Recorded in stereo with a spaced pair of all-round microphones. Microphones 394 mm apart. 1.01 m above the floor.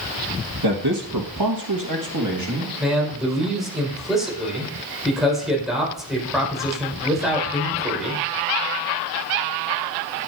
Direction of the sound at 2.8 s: Centre (ahead or behind).